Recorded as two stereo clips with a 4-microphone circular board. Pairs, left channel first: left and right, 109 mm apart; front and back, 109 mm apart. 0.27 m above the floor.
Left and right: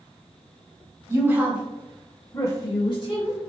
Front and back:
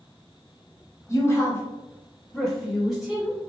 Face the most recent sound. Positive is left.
turn(degrees=100)